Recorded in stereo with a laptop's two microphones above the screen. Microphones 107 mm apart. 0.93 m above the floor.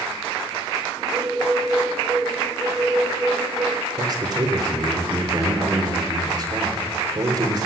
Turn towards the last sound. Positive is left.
turn(degrees=-40)  # may be behind; listen again after turning